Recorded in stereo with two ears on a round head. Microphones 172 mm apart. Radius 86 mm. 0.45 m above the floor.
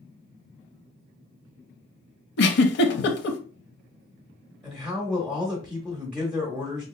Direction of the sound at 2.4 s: 60° left (ahead or behind).